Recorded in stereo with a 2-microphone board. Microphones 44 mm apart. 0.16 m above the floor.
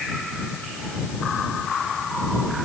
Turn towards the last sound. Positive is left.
No sound to turn to.